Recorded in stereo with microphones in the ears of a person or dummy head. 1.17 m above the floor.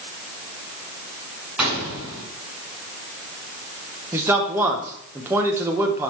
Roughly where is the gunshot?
Centre.